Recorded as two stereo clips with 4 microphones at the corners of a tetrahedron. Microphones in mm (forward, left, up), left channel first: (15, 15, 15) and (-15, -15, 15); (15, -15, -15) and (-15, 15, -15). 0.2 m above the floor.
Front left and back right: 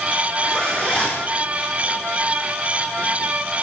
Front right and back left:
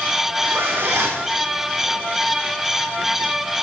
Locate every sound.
0.4 s a zipper: 115° left, 5.5 m